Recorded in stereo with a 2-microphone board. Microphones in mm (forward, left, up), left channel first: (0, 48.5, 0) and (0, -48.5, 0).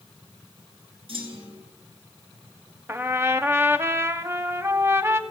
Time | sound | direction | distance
1.1 | a clunk | 65° right (ahead or behind) | 3.5 m
2.9 | a trumpet | 25° right (ahead or behind) | 0.5 m